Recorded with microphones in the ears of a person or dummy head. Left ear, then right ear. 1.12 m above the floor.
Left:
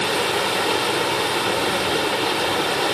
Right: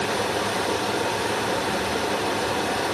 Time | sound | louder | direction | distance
0.0 | running water | left 4 dB | 55° left (ahead or behind) | 1.3 m